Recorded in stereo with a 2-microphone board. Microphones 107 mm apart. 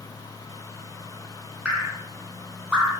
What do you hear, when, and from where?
1.6 s dripping: 10° right (ahead or behind), 1.0 m